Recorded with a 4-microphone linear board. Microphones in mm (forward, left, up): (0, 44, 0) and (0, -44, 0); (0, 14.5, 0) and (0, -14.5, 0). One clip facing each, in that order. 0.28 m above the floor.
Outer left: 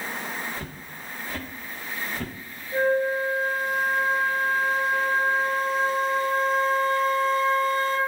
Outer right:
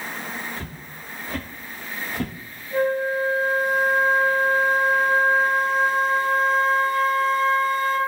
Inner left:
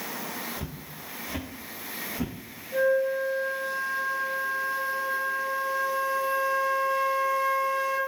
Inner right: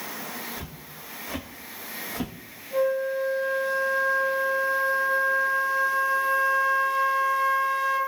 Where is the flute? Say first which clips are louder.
Outer right 1 dB, inner left 1 dB; 55° right (ahead or behind), 1.9 m.